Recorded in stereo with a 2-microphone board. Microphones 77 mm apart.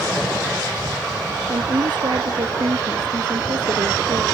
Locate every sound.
1.5 s a woman speaking: 80° right